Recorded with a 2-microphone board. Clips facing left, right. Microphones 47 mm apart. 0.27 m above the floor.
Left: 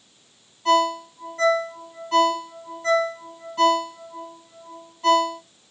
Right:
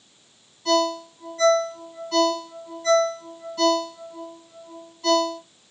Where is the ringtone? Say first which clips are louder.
Left 2 dB; 35° left (ahead or behind), 1.3 m.